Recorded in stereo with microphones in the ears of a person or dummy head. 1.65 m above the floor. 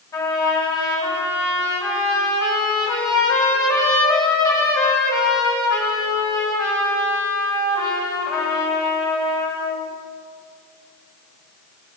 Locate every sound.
0.1 s a trumpet: 25° left (ahead or behind), 9 m